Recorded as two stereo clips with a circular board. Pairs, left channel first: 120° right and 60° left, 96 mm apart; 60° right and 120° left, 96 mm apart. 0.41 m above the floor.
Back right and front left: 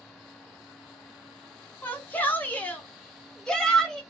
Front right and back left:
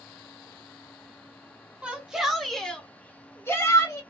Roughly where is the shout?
Behind.